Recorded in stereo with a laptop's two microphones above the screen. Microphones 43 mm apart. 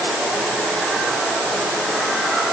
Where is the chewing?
I don't hear chewing.